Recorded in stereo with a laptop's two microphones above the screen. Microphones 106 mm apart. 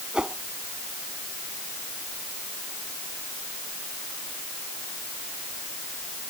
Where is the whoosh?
5° right (ahead or behind).